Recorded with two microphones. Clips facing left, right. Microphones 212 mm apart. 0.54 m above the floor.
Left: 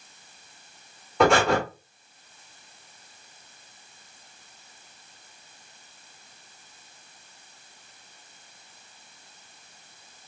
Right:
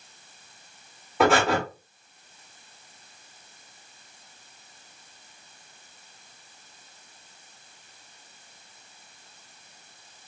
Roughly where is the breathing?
Centre.